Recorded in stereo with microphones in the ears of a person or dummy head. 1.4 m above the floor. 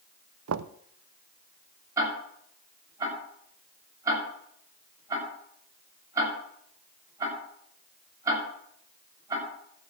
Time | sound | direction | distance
0.5 | knocking | 75° right (ahead or behind) | 0.5 m
2.0 | ticking | 15° right (ahead or behind) | 6.5 m